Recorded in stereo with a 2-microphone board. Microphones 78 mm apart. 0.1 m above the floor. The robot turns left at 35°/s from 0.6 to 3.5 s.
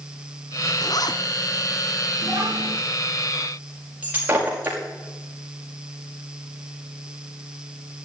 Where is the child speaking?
65° right (ahead or behind), 8 m; by 2.8 s 45° right (ahead or behind), 8 m.